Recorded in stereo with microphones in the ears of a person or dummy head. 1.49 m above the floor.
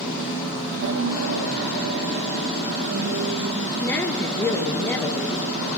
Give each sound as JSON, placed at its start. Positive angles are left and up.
{"t": 0.8, "sound": "a piano", "side_deg": -65, "distance_m": 1.1}
{"t": 3.8, "sound": "a woman speaking", "side_deg": 15, "distance_m": 1.6}